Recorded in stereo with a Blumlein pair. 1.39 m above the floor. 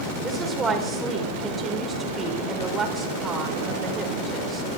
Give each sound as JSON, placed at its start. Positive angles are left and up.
{"t": 0.2, "sound": "a woman speaking", "azimuth_deg": -15, "distance_m": 4.5}